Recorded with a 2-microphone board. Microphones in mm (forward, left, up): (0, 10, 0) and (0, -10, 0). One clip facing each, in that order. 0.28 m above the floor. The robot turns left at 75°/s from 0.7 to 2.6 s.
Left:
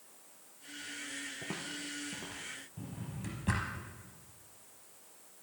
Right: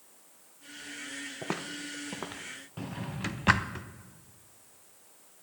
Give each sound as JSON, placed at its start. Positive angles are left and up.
{"t": 1.4, "sound": "footsteps", "side_deg": -45, "distance_m": 1.0}
{"t": 2.8, "sound": "a drawer", "side_deg": -50, "distance_m": 0.7}